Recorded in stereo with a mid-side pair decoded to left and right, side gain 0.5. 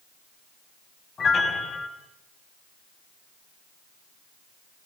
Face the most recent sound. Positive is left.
turn(degrees=30)